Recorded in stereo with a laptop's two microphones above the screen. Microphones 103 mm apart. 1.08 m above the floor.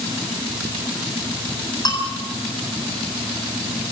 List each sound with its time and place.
1.9 s a bell: 45° left (ahead or behind), 8 m